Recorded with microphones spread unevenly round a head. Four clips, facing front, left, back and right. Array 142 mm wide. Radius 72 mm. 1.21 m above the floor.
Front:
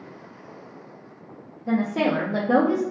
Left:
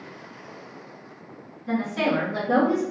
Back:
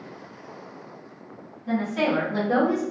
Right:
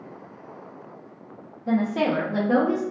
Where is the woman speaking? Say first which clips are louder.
Right 2 dB, front 2 dB; 60° right, 0.9 m; by 2.8 s 35° left, 1.0 m.